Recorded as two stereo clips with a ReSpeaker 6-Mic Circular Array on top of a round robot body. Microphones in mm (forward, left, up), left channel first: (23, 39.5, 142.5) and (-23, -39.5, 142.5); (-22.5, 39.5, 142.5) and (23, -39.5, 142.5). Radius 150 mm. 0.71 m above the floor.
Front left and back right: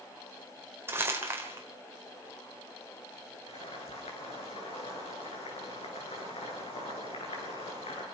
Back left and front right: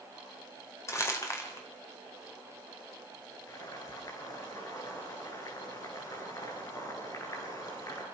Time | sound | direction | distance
0.9 | crumpling | straight behind | 4.5 m
3.5 | boiling | 70° left | 9 m